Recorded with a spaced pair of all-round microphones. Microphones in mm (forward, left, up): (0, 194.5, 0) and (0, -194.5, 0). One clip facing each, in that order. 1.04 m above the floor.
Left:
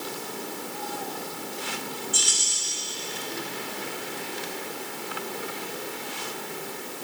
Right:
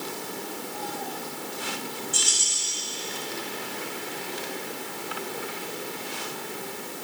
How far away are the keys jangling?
About 5 m.